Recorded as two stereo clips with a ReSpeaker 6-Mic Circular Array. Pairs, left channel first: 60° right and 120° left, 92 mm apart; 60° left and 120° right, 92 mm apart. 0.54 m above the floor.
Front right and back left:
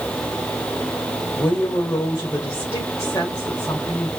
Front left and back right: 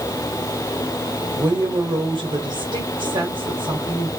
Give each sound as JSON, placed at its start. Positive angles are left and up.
{"t": 1.4, "sound": "a woman speaking", "azimuth_deg": -115, "distance_m": 1.6}